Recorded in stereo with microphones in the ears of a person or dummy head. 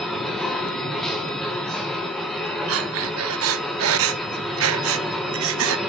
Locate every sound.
0.0 s a machine running: 5° left (ahead or behind), 0.9 m
2.7 s breathing: 75° right (ahead or behind), 0.8 m